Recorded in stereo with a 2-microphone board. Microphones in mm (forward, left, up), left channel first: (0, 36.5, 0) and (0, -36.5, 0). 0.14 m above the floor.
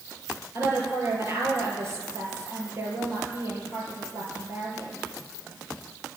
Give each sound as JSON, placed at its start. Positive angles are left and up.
{"t": 0.6, "sound": "a woman speaking", "side_deg": -40, "distance_m": 3.5}